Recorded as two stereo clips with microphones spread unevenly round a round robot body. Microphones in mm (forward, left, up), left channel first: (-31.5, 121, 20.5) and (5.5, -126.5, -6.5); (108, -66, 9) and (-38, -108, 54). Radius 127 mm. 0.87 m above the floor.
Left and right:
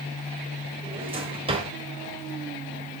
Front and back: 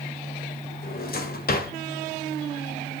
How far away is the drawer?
About 1.9 m.